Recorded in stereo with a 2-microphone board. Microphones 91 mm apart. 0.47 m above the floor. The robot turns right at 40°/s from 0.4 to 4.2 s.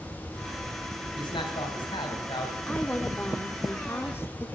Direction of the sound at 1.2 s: 70° left.